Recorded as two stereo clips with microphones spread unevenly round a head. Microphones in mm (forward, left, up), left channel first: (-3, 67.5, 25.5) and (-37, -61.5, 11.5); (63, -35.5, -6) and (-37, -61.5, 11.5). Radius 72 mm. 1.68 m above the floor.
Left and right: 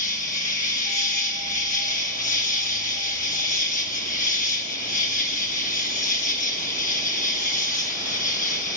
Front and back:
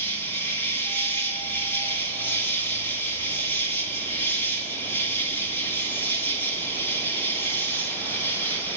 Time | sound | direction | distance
0.0 | an insect | 95° left | 1.6 m